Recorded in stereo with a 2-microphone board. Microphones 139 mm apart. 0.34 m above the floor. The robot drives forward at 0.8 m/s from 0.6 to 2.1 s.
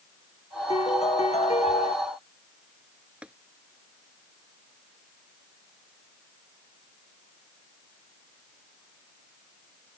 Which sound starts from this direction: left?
A piano, at 0.7 s.